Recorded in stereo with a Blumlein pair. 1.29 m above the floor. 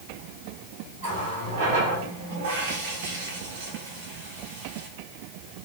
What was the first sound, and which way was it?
A running tap, 50° right.